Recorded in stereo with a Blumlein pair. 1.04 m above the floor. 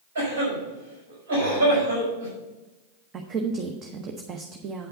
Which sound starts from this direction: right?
A cough, at 0.1 s.